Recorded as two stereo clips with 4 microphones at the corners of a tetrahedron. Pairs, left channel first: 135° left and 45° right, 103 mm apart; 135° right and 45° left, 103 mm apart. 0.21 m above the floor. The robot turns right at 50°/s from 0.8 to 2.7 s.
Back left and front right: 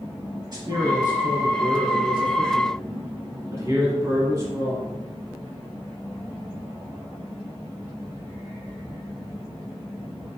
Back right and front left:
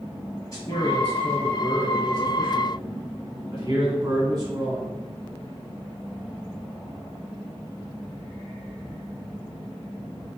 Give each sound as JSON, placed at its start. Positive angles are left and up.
{"t": 0.5, "sound": "a man speaking", "azimuth_deg": -80, "distance_m": 1.9}